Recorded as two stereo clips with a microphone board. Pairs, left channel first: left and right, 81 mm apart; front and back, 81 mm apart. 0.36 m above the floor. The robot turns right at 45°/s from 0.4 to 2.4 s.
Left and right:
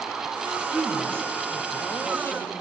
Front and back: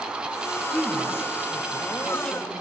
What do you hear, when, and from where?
0.7 s a woman speaking: 5° left, 1.5 m; by 2.5 s 85° left, 1.5 m